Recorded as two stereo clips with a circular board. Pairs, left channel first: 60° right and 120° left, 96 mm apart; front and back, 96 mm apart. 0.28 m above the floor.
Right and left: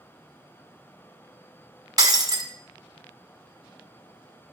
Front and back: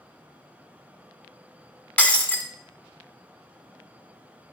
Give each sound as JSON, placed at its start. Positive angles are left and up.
{"t": 2.0, "sound": "breaking glass", "azimuth_deg": 75, "distance_m": 1.0}